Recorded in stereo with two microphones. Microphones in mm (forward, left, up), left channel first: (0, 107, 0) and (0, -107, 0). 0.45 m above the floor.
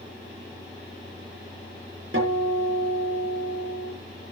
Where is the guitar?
70° right (ahead or behind), 8.5 m.